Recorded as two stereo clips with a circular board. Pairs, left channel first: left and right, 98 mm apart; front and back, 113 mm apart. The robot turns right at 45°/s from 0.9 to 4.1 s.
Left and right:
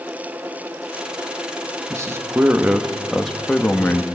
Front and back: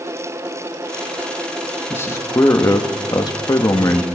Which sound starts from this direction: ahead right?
A man speaking, at 1.9 s.